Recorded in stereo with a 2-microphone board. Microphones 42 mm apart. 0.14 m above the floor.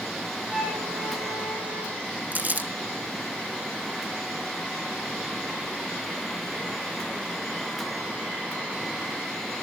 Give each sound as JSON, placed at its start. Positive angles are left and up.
{"t": 0.5, "sound": "a flute", "side_deg": -5, "distance_m": 5.5}
{"t": 2.3, "sound": "crumpling", "side_deg": -45, "distance_m": 1.4}